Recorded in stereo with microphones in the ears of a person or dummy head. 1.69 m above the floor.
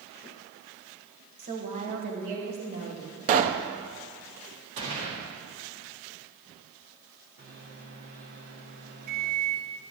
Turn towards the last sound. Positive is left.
turn(degrees=-50)  # may be behind; listen again after turning